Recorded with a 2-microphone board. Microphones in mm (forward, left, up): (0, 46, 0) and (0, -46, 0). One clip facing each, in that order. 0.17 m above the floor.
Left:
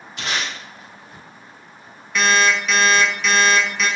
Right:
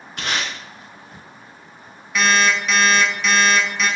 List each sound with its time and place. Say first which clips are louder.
0.2 s tape being pulled: right 1 dB; 55° right (ahead or behind), 1.3 m
2.1 s an alarm clock: even; 5° right (ahead or behind), 0.8 m